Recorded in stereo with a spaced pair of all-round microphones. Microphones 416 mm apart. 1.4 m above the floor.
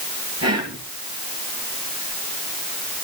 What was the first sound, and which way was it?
Whispering, 35° right (ahead or behind).